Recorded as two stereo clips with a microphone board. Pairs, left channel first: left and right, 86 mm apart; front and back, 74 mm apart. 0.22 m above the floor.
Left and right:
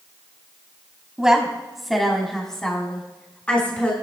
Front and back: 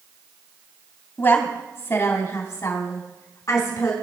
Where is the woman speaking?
15° right, 1.7 m; by 3.9 s 20° left, 2.5 m.